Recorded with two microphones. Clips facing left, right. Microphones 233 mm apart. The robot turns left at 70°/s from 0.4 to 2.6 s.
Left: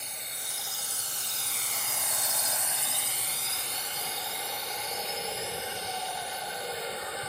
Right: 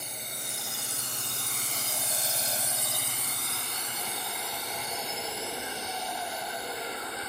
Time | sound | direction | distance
0.0 | a drone | 50° right (ahead or behind) | ?